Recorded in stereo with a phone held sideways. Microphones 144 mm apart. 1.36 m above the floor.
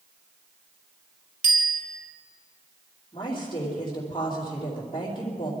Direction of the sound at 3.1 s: 30° left (ahead or behind).